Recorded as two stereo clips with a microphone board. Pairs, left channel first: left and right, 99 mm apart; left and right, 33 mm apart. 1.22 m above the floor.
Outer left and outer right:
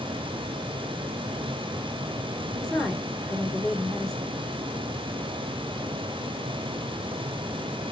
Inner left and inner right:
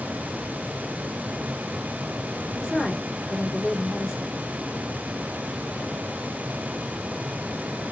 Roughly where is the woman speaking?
Centre.